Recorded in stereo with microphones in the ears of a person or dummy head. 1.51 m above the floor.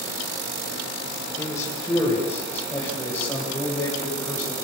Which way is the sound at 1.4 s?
25° left (ahead or behind).